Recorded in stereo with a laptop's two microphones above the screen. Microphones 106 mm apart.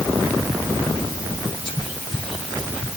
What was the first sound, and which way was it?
Whispering, 40° left (ahead or behind).